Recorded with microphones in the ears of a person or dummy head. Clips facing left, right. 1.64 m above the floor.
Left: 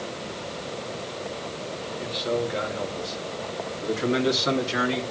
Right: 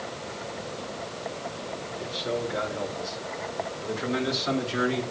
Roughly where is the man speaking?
Centre.